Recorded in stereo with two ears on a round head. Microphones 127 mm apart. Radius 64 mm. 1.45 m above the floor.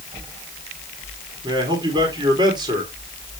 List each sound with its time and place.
1.4 s a man speaking: 30° right (ahead or behind), 3 m